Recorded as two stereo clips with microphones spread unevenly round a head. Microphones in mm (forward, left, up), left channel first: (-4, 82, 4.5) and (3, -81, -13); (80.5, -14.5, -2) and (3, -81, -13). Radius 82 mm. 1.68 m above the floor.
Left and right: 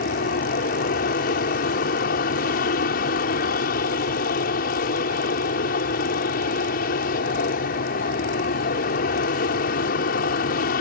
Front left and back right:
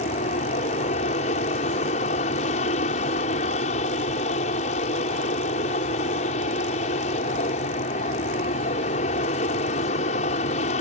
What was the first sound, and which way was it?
An aircraft, 55° left.